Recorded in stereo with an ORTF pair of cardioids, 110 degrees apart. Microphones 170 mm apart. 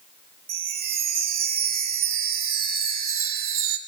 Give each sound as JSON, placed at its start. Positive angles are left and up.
{"t": 0.5, "sound": "a chime", "azimuth_deg": -60, "distance_m": 1.2}